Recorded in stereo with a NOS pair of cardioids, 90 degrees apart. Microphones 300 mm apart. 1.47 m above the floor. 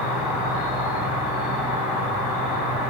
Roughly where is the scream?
No scream in this recording.